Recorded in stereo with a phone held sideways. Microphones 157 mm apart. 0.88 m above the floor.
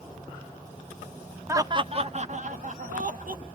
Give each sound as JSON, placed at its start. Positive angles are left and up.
{"t": 1.5, "sound": "laughter", "side_deg": -15, "distance_m": 0.5}